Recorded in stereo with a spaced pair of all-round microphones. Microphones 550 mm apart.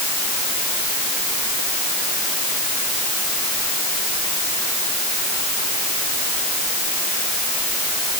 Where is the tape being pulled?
I don't hear tape being pulled.